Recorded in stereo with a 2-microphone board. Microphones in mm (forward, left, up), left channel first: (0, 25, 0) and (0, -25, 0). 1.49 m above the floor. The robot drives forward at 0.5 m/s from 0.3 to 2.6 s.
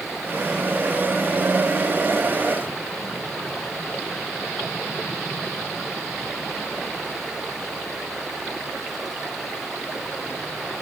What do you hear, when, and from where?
Only background noise.